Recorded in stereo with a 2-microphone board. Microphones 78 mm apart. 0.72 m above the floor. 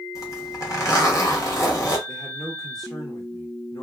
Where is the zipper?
40° left (ahead or behind), 1.0 m.